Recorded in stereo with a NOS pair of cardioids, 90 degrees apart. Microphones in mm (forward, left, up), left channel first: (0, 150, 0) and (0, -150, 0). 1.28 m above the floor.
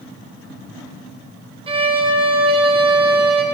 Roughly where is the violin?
Ahead.